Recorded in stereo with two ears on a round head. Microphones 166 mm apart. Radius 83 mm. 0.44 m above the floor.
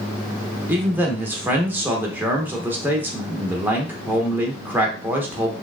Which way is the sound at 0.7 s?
10° right (ahead or behind).